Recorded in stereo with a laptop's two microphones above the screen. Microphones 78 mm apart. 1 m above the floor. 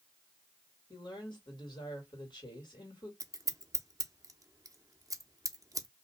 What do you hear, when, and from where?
0.9 s a woman speaking: 70° left (ahead or behind), 2 m
3.2 s scissors: 45° right (ahead or behind), 0.6 m